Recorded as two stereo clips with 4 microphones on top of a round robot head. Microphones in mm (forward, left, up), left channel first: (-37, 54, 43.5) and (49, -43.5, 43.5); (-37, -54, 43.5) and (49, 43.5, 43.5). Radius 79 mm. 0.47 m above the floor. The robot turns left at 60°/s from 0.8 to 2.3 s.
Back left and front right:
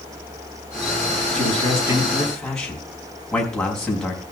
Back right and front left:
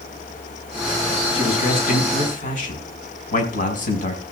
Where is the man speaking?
85° right, 5.5 m; by 4.2 s 145° right, 5.5 m.